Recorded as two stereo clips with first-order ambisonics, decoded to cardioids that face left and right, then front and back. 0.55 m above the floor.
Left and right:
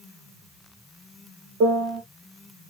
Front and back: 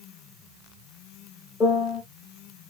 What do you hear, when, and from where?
1.6 s a piano: 75° right, 1.6 m